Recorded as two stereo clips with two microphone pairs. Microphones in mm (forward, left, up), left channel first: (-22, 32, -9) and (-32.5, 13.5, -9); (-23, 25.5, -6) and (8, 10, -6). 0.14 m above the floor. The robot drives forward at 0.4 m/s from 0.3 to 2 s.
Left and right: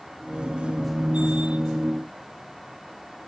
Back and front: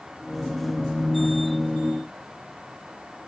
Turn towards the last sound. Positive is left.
No sound to turn to.